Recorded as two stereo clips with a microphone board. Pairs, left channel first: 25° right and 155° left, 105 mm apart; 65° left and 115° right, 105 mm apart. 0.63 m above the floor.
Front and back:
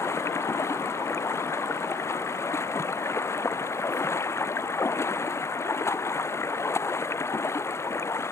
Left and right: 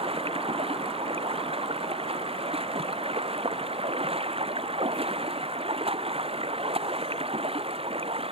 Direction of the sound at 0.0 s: 85° right.